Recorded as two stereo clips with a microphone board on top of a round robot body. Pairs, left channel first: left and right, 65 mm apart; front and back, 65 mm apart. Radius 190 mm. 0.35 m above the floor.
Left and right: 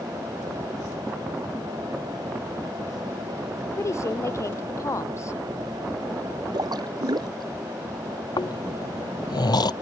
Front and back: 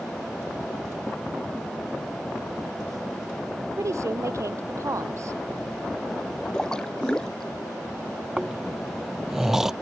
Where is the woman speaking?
135° left.